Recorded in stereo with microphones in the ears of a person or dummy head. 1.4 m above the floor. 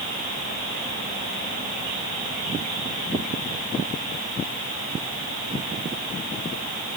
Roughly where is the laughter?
I don't hear laughter.